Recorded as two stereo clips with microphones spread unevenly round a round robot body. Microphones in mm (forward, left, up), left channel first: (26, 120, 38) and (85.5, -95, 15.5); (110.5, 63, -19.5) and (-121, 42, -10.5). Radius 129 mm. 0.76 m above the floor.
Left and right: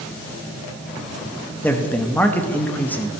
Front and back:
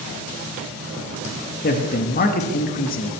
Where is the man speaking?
20° left, 1.1 m.